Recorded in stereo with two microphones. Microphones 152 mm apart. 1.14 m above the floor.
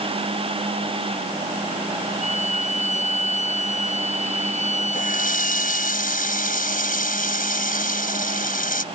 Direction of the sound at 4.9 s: 65° left (ahead or behind).